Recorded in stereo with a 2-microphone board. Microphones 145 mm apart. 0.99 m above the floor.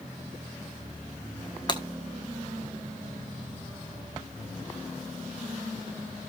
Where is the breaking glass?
30° left (ahead or behind), 1.2 m.